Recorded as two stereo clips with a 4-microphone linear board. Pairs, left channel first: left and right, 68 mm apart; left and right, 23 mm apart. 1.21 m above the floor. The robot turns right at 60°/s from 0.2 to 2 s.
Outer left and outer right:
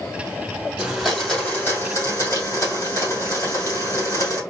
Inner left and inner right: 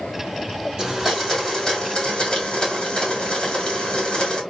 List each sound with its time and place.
0.8 s a blender: 15° right, 1.9 m; by 4.4 s 55° left, 1.9 m